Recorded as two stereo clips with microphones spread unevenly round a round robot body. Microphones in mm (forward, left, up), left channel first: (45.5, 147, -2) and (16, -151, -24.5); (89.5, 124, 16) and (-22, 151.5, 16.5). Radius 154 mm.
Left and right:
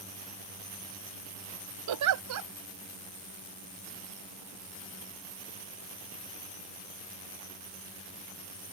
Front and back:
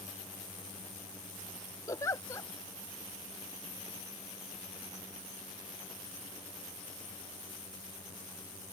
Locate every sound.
1.9 s a giggle: 85° right